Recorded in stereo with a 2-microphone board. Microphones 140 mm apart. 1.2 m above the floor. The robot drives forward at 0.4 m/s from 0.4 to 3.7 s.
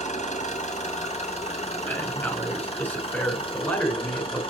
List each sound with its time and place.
0.0 s an engine running: 55° left (ahead or behind), 3 m; by 4.5 s 40° left (ahead or behind), 4 m
1.9 s a man speaking: 15° left (ahead or behind), 3 m; by 4.4 s 10° left (ahead or behind), 4 m